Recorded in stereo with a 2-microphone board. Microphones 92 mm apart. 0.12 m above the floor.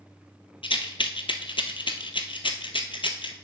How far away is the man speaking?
No man speaking in this recording.